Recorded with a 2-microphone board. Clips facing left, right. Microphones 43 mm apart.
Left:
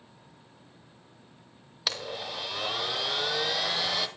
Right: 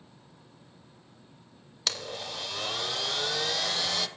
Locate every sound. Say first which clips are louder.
1.9 s a blender: left 1 dB; 10° left (ahead or behind), 1.5 m